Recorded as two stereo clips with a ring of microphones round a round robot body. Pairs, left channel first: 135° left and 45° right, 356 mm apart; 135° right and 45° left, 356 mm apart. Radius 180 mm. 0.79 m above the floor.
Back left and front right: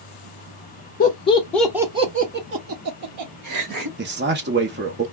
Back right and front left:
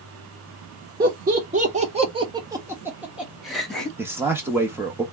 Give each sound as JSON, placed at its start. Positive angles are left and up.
{"t": 1.0, "sound": "laughter", "azimuth_deg": 90, "distance_m": 0.9}
{"t": 4.0, "sound": "a man speaking", "azimuth_deg": -35, "distance_m": 0.9}